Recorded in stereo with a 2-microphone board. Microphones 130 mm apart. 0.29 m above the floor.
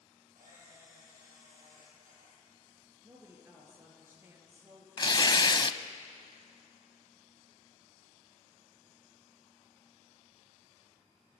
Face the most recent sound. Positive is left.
turn(degrees=35)  # may be behind; listen again after turning